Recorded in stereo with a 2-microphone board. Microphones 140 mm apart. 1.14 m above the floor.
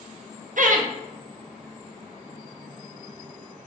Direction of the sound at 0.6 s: 65° right (ahead or behind).